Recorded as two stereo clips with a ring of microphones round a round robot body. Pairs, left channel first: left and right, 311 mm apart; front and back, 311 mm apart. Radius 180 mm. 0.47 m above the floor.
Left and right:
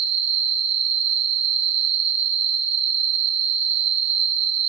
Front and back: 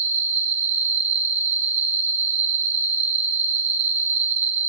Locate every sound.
0.0 s an insect: 115° right, 1.0 m